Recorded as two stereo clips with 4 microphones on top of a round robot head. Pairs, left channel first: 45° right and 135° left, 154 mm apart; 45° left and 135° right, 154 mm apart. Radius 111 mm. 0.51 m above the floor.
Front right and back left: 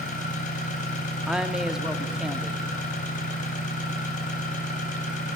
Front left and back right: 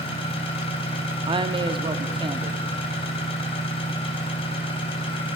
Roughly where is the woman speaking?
Behind right.